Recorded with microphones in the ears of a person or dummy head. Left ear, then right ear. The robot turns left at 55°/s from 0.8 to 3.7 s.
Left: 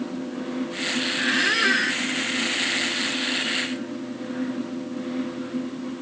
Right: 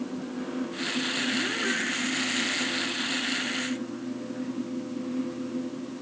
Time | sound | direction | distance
1.2 | a squeak | 130° left | ?